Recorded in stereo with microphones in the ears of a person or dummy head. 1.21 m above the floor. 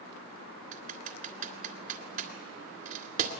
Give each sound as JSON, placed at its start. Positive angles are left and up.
{"t": 0.7, "sound": "typing on a keyboard", "side_deg": -40, "distance_m": 2.0}